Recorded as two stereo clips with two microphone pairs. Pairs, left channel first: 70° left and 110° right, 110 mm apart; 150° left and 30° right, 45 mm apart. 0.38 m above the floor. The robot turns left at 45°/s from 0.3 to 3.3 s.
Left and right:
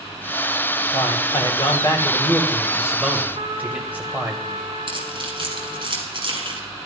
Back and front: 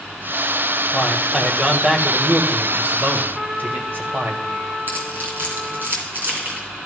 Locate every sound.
0.9 s a man speaking: 70° left, 2 m; by 4.3 s 40° right, 2 m
3.4 s a trumpet: 95° right, 2.5 m
4.9 s keys jangling: 70° right, 2.5 m